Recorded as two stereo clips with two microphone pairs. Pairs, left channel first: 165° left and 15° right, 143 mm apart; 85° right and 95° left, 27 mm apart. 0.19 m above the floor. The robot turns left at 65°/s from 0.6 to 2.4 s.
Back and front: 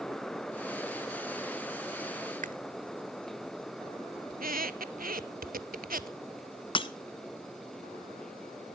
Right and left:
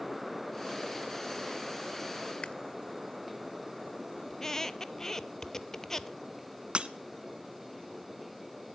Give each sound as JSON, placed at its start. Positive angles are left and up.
{"t": 2.4, "sound": "chewing", "azimuth_deg": -35, "distance_m": 0.5}
{"t": 4.3, "sound": "a squeak", "azimuth_deg": -10, "distance_m": 0.5}
{"t": 6.8, "sound": "breaking glass", "azimuth_deg": 125, "distance_m": 0.6}